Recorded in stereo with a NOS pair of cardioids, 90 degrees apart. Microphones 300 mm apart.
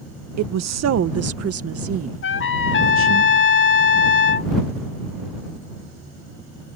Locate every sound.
0.4 s a woman speaking: 65° right; by 3.2 s 40° right
2.2 s a trumpet: 40° left